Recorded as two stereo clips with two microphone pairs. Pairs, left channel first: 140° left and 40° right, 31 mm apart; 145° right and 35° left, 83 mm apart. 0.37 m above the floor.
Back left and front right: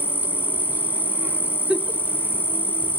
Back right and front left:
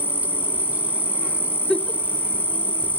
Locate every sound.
0.0 s an insect: 35° right, 0.8 m
1.7 s a giggle: 65° right, 0.6 m